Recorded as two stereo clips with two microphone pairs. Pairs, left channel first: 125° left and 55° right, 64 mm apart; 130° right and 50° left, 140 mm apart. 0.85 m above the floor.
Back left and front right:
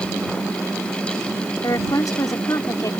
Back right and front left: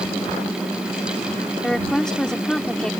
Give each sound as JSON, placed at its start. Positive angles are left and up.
{"t": 1.6, "sound": "a woman speaking", "azimuth_deg": 145}